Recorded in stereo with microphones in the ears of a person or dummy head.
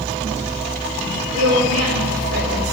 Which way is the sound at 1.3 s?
45° right (ahead or behind).